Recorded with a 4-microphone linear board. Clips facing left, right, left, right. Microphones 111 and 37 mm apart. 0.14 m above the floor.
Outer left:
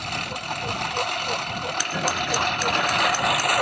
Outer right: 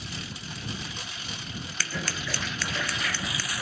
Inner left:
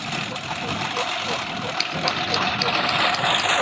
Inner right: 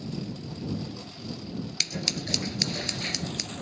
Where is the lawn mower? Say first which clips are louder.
Outer left 9 dB, inner left 9 dB; 70° left (ahead or behind).